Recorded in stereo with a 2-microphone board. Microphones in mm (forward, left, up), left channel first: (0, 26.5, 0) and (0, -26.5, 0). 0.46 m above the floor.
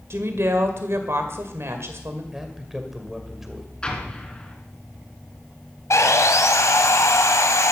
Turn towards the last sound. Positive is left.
turn(degrees=80)